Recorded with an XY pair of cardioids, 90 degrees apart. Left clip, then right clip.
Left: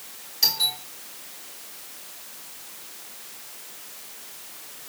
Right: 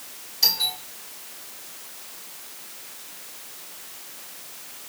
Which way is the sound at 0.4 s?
25° left.